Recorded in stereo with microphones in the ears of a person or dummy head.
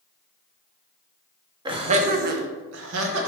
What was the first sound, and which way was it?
Laughter, 25° right (ahead or behind).